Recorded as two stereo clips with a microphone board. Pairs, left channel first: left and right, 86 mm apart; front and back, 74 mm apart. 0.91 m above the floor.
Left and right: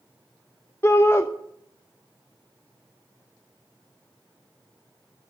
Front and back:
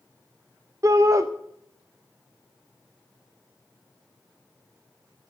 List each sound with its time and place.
0.8 s a shout: 145° left, 0.6 m